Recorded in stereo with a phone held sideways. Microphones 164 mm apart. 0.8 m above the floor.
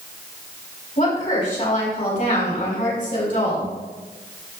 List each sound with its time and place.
1.0 s a woman speaking: 55° left (ahead or behind), 4 m